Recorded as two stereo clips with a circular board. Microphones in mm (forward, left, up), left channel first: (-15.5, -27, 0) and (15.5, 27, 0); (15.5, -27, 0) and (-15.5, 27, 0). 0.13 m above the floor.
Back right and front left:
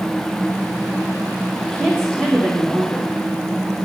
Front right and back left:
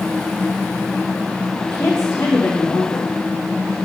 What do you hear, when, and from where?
1.6 s a woman speaking: 45° right, 7 m